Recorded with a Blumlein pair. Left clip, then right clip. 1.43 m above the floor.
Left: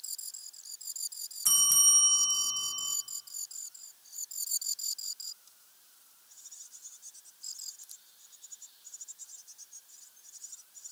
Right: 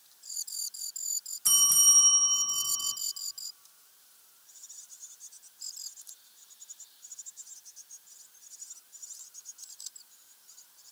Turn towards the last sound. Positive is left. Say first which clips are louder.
# right 2 dB
turn(degrees=0)